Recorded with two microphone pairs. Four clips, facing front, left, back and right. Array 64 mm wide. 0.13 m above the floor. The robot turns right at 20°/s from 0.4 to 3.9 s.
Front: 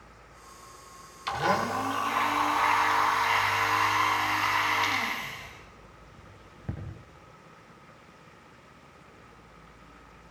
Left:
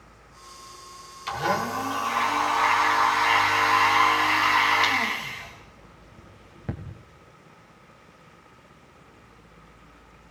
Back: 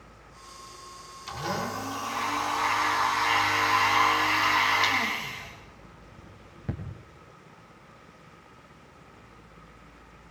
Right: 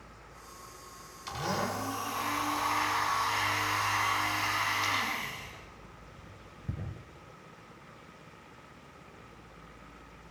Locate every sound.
1.3 s a blender: 35° left, 6.5 m; by 6.8 s 85° left, 6.5 m